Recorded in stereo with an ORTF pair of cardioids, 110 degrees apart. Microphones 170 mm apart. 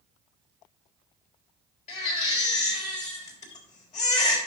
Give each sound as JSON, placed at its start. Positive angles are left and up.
{"t": 1.9, "sound": "a baby crying", "azimuth_deg": 45, "distance_m": 3.5}